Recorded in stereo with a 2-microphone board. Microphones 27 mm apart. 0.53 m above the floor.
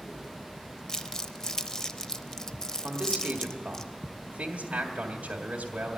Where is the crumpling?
20° left (ahead or behind), 0.6 m.